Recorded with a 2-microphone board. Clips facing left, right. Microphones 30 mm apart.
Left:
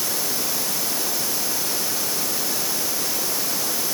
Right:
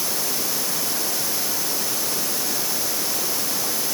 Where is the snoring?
No snoring in this recording.